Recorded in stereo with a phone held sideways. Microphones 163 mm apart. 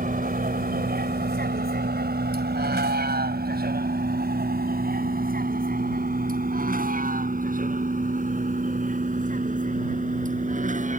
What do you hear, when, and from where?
0.0 s a vehicle: 60° right (ahead or behind); by 11.0 s 50° right (ahead or behind)